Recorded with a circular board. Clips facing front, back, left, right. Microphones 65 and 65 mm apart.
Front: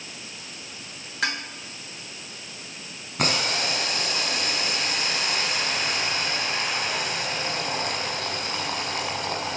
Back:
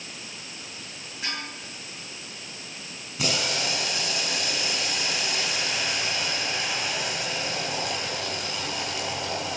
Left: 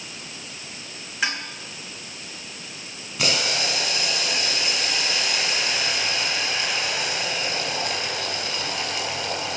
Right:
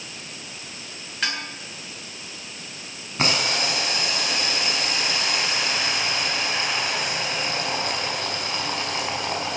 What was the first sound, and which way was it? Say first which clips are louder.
Dishes clattering: front 6 dB, left 2 dB; 10° left.